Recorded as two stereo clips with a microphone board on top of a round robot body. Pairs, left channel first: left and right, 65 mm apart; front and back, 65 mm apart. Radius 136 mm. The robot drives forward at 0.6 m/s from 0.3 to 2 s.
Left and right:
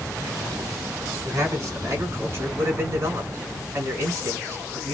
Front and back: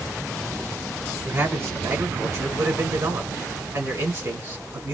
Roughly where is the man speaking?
Behind right.